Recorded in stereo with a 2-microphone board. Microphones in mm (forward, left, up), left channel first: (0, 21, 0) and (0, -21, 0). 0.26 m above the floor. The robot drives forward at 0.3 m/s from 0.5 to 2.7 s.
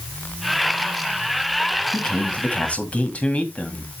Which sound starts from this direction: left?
A man speaking, at 1.9 s.